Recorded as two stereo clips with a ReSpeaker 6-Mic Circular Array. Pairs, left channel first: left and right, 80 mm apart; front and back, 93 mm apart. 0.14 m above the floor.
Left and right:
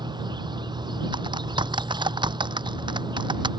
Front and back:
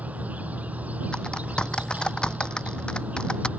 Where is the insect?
105° right.